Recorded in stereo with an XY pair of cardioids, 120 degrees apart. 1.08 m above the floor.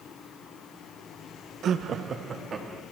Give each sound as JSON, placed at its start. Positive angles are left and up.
{"t": 1.6, "sound": "laughter", "azimuth_deg": -60, "distance_m": 0.5}